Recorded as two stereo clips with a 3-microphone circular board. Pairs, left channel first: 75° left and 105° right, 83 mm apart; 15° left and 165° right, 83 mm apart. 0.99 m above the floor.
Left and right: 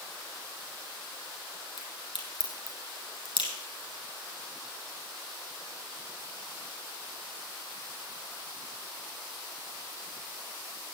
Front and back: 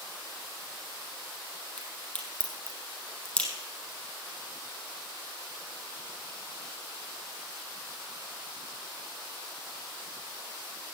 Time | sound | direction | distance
1.8 | a crack | 95° left | 5 m